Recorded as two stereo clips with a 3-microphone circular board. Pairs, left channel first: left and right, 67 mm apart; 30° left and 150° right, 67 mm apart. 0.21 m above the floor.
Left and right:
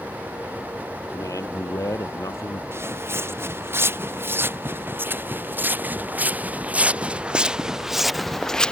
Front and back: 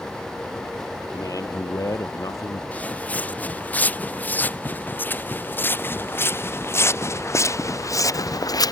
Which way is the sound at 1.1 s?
60° left.